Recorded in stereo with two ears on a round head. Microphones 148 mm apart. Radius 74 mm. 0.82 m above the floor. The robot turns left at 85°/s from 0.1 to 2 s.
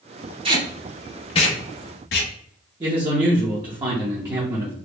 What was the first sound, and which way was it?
Tape being pulled, 35° right (ahead or behind).